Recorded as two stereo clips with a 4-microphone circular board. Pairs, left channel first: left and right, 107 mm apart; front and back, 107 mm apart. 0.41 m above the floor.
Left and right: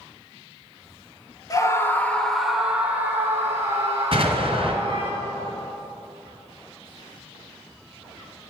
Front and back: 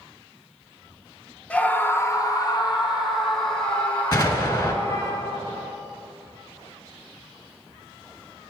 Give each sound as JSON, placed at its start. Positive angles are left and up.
{"t": 1.5, "sound": "a scream", "azimuth_deg": 70, "distance_m": 0.9}
{"t": 4.1, "sound": "an explosion", "azimuth_deg": -55, "distance_m": 1.4}